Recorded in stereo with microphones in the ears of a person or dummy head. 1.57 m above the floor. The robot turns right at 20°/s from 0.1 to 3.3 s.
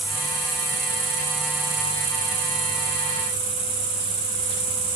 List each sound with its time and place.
0.0 s an insect: 135° right, 0.8 m; by 5.0 s 75° right, 0.8 m